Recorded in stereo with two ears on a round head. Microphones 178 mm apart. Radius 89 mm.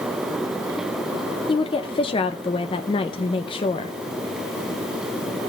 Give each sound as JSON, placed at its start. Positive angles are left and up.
{"t": 1.5, "sound": "a woman speaking", "side_deg": 25, "distance_m": 0.6}